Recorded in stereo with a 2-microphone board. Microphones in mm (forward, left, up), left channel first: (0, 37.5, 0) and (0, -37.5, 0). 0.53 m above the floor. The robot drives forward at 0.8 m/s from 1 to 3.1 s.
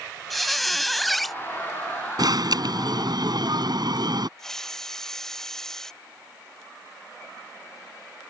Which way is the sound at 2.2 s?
60° right (ahead or behind).